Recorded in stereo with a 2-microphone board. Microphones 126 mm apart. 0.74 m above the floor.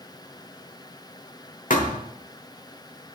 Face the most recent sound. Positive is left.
turn(degrees=85)